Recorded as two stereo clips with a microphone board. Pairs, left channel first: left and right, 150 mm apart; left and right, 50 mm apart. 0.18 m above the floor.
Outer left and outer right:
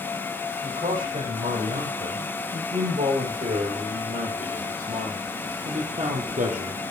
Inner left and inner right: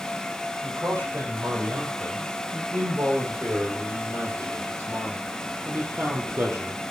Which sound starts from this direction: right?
A man speaking, at 0.6 s.